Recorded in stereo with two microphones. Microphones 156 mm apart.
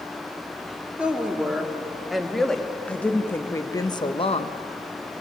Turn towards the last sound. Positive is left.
turn(degrees=45)  # may be behind; listen again after turning